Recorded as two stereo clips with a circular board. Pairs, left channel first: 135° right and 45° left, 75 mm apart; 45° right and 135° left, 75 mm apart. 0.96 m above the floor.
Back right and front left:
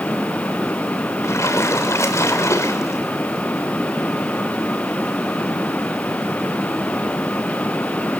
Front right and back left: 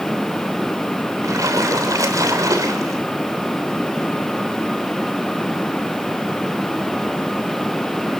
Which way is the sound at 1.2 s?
175° left.